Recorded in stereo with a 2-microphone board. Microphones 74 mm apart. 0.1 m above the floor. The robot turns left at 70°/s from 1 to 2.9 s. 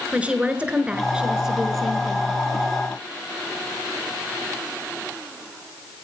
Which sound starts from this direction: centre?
A woman speaking, at 0.1 s.